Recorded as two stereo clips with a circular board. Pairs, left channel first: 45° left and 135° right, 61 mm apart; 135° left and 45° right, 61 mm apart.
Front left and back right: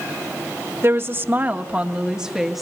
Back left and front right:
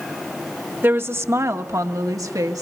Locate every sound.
0.8 s a woman speaking: 95° right, 1.5 m; by 2.6 s 50° right, 1.6 m